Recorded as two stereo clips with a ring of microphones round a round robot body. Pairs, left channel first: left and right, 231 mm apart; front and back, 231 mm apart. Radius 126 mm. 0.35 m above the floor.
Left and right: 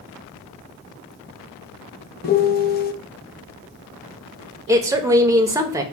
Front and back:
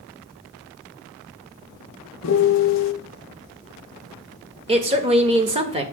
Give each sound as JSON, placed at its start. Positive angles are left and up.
{"t": 2.2, "sound": "a piano", "azimuth_deg": 35, "distance_m": 0.6}
{"t": 4.7, "sound": "a woman speaking", "azimuth_deg": -150, "distance_m": 1.3}